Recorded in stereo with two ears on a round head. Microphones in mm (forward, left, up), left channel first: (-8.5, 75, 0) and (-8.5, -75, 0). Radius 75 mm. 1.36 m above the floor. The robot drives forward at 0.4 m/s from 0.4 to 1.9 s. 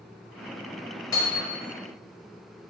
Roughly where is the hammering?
Left.